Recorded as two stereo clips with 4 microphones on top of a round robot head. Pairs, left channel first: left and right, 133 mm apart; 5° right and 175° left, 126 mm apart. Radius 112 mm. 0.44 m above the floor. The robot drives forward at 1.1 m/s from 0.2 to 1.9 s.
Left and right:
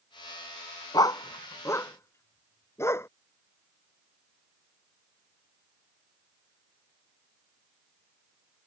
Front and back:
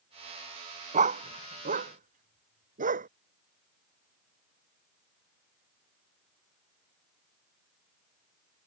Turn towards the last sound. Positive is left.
turn(degrees=160)